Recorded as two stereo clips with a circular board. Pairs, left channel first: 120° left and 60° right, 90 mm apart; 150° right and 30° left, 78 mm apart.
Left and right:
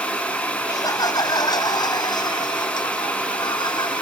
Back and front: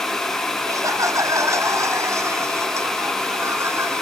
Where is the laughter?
75° left; by 4.0 s 85° left.